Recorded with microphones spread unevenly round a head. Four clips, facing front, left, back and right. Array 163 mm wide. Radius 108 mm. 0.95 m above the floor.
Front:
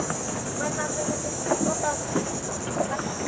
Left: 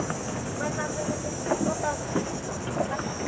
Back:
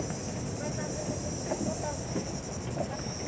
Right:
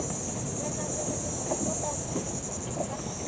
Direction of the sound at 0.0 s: 30° left.